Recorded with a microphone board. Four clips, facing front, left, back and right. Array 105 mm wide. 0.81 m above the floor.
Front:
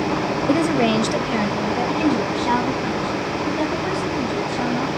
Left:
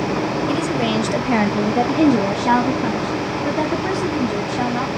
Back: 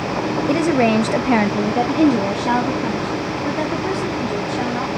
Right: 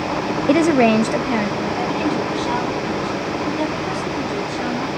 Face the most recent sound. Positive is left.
turn(degrees=115)